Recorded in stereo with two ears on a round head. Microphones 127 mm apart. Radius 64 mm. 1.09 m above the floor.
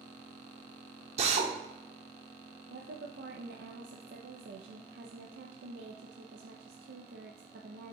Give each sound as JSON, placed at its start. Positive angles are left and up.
{"t": 1.2, "sound": "a drill", "side_deg": -45, "distance_m": 1.0}
{"t": 2.7, "sound": "a woman speaking", "side_deg": -85, "distance_m": 0.6}